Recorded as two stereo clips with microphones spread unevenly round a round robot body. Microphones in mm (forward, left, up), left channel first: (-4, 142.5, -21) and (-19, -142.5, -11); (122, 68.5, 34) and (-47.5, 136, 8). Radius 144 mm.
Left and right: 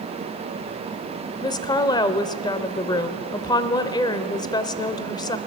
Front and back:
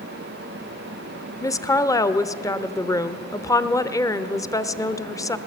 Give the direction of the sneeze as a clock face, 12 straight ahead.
No sneeze in this recording.